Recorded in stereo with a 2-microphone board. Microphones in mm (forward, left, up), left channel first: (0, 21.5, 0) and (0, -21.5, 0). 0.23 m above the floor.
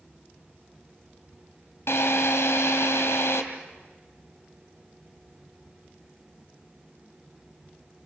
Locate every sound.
1.9 s a drill: 75° left (ahead or behind), 3 m